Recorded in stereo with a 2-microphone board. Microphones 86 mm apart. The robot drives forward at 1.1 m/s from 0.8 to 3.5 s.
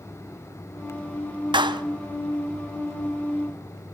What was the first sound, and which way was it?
A clap, 65° right (ahead or behind).